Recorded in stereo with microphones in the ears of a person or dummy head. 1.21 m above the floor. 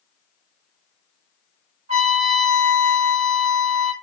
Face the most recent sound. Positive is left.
turn(degrees=-35)  # may be behind; listen again after turning